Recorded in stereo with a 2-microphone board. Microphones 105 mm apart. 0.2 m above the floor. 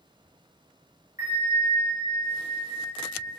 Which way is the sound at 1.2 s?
30° right (ahead or behind).